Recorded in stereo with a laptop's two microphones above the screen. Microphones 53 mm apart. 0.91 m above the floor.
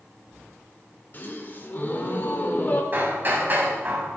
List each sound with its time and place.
1.1 s a gasp: 40° left (ahead or behind), 2.5 m
2.9 s hammering: 40° right (ahead or behind), 3.5 m